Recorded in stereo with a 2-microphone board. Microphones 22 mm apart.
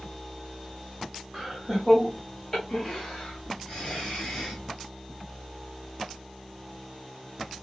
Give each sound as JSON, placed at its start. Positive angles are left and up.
{"t": 1.3, "sound": "laughter", "side_deg": -15, "distance_m": 1.2}